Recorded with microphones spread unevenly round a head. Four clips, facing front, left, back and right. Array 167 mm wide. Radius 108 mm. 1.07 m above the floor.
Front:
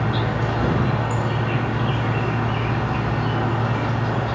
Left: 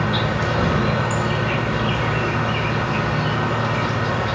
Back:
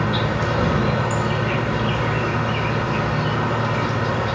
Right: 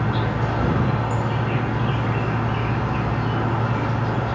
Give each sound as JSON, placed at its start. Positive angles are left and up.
{"t": 0.0, "sound": "an insect", "azimuth_deg": 125, "distance_m": 2.5}